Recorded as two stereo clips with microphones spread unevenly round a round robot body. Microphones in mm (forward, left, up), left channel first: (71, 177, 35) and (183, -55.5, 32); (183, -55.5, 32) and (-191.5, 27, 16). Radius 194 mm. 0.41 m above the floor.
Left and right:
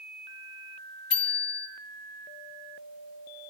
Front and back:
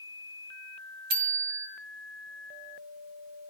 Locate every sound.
1.1 s a bicycle bell: 175° left, 2.5 m